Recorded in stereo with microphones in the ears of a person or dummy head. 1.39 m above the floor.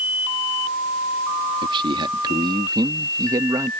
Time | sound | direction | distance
1.6 | a man speaking | 30° right (ahead or behind) | ?